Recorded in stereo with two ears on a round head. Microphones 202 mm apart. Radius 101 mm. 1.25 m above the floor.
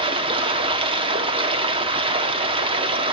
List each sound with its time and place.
0.0 s running water: 25° right (ahead or behind), 1.2 m